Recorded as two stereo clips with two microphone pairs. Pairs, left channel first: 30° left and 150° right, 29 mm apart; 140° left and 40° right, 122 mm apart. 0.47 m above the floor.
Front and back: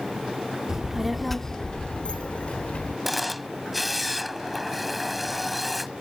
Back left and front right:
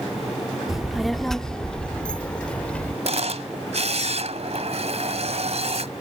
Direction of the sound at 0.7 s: 125° right.